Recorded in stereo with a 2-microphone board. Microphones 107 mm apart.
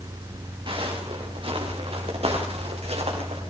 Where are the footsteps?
50° right (ahead or behind), 6 m; by 3.4 s 65° right (ahead or behind), 7.5 m.